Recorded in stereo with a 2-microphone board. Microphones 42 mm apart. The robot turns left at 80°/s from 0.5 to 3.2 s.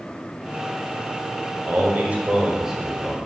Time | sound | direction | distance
1.7 | a man speaking | 80° right | 1.2 m